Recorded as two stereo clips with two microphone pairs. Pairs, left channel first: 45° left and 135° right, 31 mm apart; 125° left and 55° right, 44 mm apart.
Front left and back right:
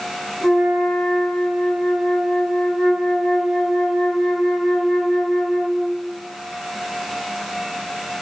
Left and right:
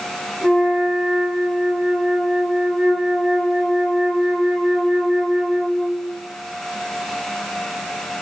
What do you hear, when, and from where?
0.4 s a flute: 5° left, 1.7 m